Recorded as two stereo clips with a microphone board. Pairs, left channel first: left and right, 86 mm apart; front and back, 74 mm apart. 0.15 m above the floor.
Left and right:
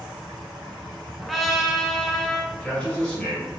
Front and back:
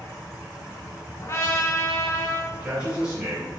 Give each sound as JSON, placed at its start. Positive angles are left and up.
{"t": 1.2, "sound": "a trumpet", "azimuth_deg": 5, "distance_m": 0.6}
{"t": 2.5, "sound": "a man speaking", "azimuth_deg": 150, "distance_m": 1.1}